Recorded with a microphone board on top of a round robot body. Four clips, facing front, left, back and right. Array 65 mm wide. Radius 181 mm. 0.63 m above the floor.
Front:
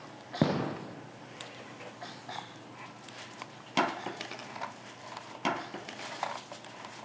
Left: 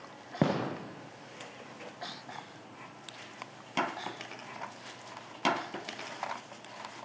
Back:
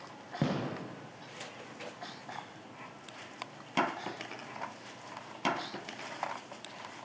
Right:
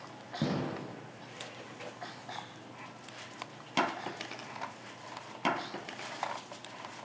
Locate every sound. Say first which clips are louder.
0.4 s a gunshot: left 4 dB, front 4 dB; 45° left, 0.5 m